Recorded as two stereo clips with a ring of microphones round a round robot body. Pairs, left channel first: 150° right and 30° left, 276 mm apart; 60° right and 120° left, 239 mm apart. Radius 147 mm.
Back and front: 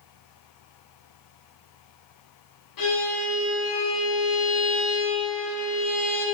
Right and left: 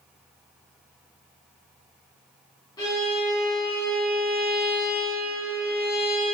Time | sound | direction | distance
2.8 | a violin | 135° right | 3 m